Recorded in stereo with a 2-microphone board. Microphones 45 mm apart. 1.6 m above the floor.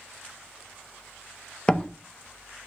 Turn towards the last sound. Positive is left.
turn(degrees=20)  # may be behind; listen again after turning